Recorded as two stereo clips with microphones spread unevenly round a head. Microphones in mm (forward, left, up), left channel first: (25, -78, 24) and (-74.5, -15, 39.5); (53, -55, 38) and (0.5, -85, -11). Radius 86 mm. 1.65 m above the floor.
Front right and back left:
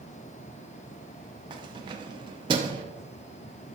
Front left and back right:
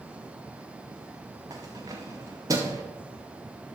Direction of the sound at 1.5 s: 115° left.